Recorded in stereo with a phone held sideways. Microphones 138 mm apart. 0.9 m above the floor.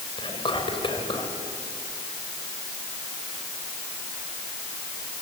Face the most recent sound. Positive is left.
turn(degrees=40)  # may be behind; listen again after turning